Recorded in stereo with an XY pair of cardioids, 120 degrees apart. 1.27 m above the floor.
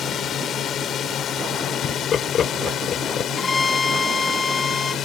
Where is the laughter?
45° left.